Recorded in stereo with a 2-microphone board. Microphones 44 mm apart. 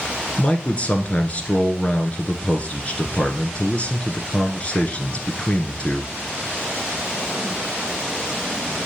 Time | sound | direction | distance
0.4 | a man speaking | 30° left (ahead or behind) | 1.5 m